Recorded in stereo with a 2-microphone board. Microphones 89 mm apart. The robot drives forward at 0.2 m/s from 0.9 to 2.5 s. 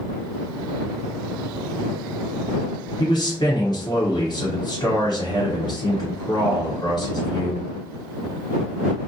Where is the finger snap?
No finger snap in this recording.